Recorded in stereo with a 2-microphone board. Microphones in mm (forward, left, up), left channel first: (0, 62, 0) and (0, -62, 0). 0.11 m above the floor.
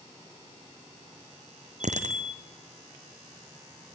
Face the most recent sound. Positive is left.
turn(degrees=-70)  # may be behind; listen again after turning